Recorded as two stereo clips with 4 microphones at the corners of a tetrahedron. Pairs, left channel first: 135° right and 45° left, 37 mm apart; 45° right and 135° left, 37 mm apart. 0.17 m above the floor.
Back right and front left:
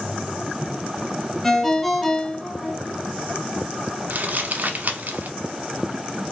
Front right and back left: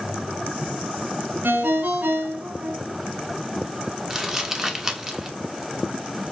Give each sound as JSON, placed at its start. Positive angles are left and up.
{"t": 1.4, "sound": "a ringtone", "azimuth_deg": 140, "distance_m": 0.6}
{"t": 4.1, "sound": "crumpling", "azimuth_deg": 60, "distance_m": 0.7}